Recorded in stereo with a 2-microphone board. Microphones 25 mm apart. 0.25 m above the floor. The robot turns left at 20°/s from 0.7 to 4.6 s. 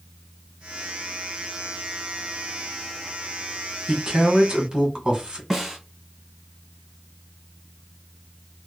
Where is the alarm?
I don't hear an alarm.